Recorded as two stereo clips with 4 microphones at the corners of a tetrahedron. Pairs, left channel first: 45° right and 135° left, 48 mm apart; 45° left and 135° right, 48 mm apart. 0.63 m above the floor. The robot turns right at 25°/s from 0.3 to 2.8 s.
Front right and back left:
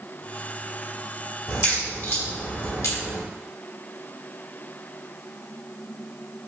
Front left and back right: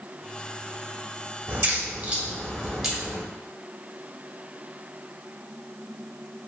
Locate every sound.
1.5 s a crack: 85° right, 1.0 m; by 3.2 s 50° right, 1.0 m